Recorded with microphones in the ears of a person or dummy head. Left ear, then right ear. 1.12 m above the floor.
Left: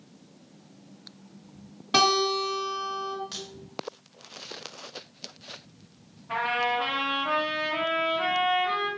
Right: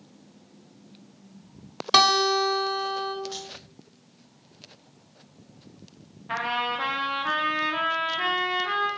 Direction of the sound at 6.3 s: 35° right (ahead or behind).